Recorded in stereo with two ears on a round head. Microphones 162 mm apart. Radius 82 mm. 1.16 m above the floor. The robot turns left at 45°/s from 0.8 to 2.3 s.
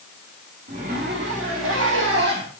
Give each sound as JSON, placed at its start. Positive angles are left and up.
{"t": 0.7, "sound": "a zipper", "azimuth_deg": -45, "distance_m": 2.5}